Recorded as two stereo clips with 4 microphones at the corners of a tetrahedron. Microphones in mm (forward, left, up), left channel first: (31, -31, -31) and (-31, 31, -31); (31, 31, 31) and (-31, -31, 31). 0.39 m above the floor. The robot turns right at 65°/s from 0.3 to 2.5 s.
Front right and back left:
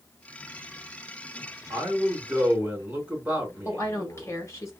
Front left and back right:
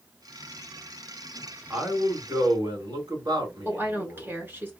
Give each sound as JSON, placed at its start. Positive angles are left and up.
{"t": 1.7, "sound": "a man speaking", "azimuth_deg": 155, "distance_m": 2.0}
{"t": 3.6, "sound": "a woman speaking", "azimuth_deg": -85, "distance_m": 1.7}